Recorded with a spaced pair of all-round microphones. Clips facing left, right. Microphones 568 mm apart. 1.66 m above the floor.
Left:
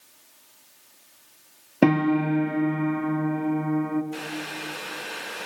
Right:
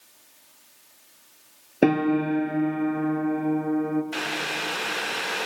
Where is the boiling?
85° right, 0.7 m.